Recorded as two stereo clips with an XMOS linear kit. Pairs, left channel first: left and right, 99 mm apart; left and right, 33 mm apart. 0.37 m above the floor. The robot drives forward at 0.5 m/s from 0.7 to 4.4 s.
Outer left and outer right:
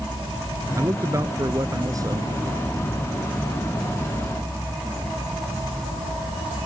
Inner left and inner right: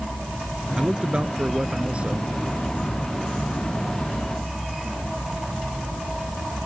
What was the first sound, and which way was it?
A man speaking, 35° right (ahead or behind).